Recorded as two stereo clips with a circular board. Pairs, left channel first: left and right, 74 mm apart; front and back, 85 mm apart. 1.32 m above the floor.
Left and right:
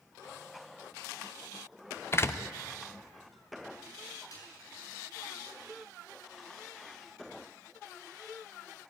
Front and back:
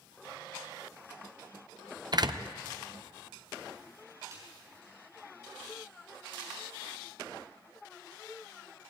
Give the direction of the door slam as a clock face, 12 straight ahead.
7 o'clock.